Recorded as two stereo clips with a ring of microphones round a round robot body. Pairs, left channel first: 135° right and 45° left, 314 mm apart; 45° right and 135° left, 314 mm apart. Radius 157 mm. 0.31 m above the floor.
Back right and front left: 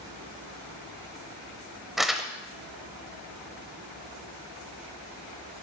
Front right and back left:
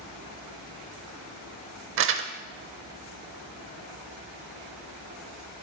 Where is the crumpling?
135° left, 0.7 m.